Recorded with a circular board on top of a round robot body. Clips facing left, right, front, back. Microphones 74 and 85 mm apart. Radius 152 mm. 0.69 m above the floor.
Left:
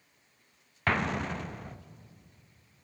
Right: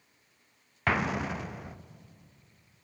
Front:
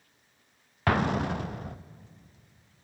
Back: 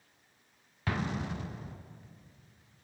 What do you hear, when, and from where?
0.9 s an explosion: 5° right, 0.8 m